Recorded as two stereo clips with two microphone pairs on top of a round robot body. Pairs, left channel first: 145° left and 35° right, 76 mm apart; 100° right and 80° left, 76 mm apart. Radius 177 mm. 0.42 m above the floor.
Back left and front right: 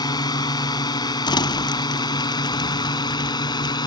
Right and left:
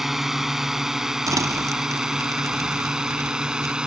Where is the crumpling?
125° left.